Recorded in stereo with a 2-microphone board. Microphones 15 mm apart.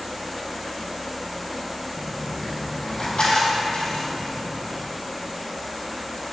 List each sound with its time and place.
2.0 s a dropped coin: 75° left (ahead or behind), 2.5 m